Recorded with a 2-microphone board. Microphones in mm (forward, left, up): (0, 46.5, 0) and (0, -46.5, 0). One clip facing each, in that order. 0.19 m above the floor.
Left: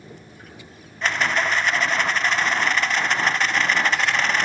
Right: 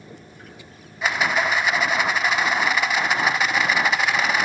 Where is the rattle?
10° right (ahead or behind), 0.7 m.